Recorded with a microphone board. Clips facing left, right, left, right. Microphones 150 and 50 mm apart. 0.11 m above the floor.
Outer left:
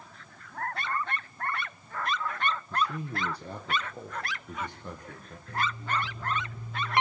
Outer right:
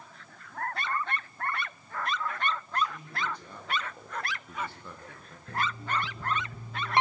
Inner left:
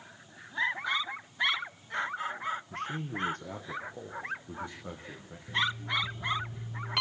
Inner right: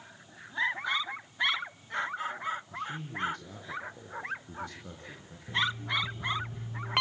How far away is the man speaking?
About 3.5 m.